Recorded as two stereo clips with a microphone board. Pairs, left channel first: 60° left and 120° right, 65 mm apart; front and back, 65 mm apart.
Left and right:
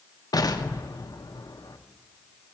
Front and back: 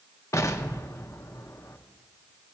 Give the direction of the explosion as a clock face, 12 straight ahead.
11 o'clock.